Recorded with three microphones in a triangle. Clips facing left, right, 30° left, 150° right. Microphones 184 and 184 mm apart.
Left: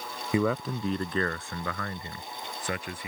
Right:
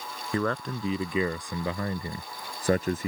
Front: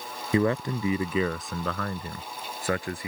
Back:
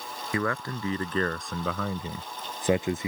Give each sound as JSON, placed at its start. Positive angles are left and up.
{"t": 0.3, "sound": "a man speaking", "azimuth_deg": 30}